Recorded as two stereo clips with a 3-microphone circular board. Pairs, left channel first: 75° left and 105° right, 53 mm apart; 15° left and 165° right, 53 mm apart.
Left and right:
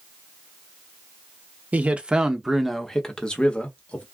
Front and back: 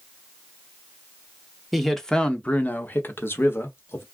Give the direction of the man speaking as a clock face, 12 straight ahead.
3 o'clock.